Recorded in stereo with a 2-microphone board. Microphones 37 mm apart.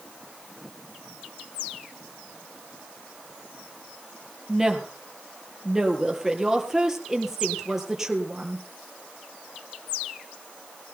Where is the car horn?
I don't hear a car horn.